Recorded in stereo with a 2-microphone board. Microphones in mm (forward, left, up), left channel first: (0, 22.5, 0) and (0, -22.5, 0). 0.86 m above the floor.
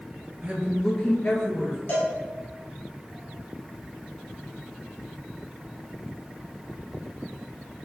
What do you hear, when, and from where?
0.4 s a woman speaking: 35° right (ahead or behind), 0.7 m; by 1.8 s 60° left (ahead or behind), 1.4 m
1.9 s a cowbell: 55° left (ahead or behind), 1.6 m